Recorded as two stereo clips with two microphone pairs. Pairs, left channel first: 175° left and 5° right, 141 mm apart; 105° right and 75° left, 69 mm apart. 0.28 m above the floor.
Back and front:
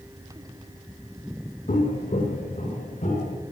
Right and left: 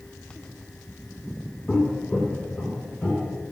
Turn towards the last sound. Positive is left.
turn(degrees=-175)